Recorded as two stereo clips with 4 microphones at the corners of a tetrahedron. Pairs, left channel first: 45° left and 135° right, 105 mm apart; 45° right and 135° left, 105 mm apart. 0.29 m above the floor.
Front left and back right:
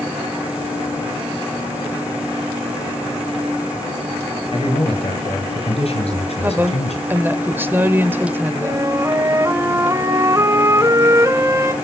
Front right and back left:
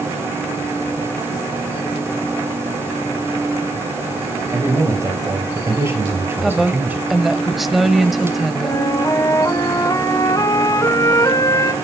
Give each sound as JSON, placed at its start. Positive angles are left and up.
{"t": 4.5, "sound": "a man speaking", "azimuth_deg": 80, "distance_m": 6.0}
{"t": 6.4, "sound": "a woman speaking", "azimuth_deg": -140, "distance_m": 0.9}
{"t": 8.6, "sound": "a flute", "azimuth_deg": -85, "distance_m": 0.9}